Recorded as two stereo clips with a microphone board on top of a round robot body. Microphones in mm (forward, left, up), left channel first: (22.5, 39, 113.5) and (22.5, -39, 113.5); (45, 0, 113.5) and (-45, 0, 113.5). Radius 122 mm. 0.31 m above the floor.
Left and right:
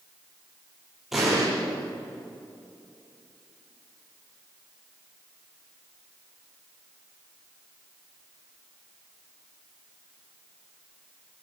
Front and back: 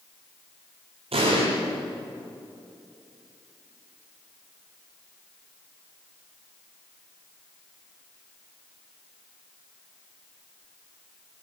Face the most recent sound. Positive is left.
turn(degrees=180)